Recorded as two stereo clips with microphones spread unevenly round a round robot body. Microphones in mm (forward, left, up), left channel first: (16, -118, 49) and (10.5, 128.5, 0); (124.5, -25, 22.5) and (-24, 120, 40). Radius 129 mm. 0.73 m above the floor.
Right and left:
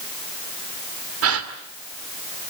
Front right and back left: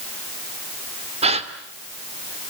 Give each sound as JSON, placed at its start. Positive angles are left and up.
{"t": 1.2, "sound": "a gasp", "azimuth_deg": 75, "distance_m": 2.5}